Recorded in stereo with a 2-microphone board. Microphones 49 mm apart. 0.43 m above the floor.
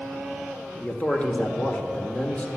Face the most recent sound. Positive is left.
turn(degrees=25)  # may be behind; listen again after turning